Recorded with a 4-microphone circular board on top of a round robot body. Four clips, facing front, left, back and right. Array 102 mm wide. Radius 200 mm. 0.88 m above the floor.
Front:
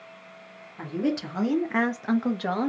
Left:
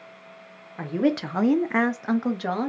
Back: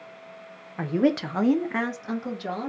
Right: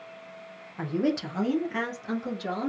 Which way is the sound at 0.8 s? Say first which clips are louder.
Left 3 dB, back 5 dB; 160° left.